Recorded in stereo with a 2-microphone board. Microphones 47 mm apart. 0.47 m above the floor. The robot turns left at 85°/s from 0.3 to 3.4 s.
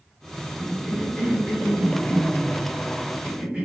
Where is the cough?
145° right, 1.7 m; by 3.6 s 25° right, 1.7 m.